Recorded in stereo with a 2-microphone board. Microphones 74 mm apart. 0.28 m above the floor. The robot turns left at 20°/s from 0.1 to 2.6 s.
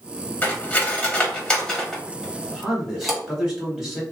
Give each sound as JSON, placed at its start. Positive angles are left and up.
{"t": 0.4, "sound": "cutlery clinking", "side_deg": 25, "distance_m": 0.7}
{"t": 2.5, "sound": "a man speaking", "side_deg": -5, "distance_m": 1.2}